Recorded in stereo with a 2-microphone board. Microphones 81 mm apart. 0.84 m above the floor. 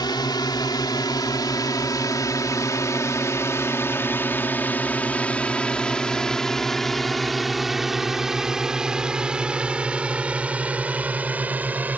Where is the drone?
65° left (ahead or behind); by 12.0 s 20° right (ahead or behind).